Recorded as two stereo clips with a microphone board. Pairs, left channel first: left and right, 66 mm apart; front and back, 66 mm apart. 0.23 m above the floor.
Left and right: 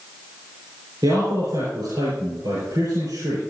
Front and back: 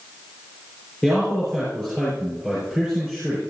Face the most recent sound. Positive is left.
turn(degrees=-80)